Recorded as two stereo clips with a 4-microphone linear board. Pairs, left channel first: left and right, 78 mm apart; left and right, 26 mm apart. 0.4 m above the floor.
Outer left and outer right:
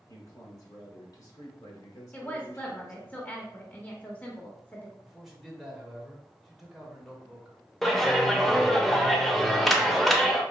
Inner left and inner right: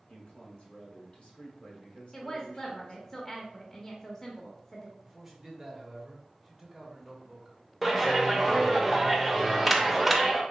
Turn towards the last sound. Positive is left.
turn(degrees=0)  # may be behind; listen again after turning